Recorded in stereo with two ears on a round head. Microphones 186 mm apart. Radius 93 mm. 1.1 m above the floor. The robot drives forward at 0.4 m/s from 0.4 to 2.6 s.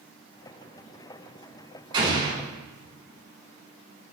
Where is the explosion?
25° right (ahead or behind), 3.5 m.